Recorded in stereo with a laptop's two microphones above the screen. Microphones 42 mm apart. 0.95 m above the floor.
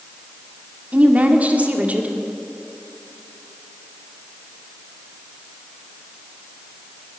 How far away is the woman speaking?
About 2.0 m.